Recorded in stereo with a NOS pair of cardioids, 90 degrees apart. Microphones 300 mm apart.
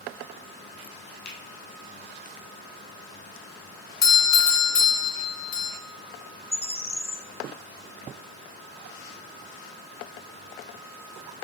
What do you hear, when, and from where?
1.2 s a finger snap: 65° left, 2.5 m
4.0 s a doorbell: 60° left, 1.6 m
6.5 s a bird: 10° left, 0.5 m